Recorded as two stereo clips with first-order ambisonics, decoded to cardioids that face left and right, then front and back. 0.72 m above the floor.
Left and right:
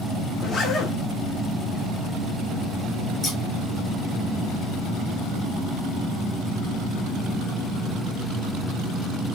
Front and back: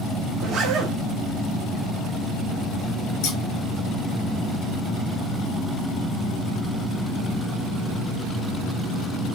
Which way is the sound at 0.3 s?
145° left.